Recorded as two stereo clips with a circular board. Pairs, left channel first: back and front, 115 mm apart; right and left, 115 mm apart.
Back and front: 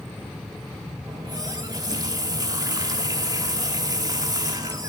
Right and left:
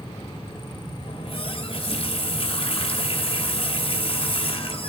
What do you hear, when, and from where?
1.1 s a running tap: 55° right, 2.5 m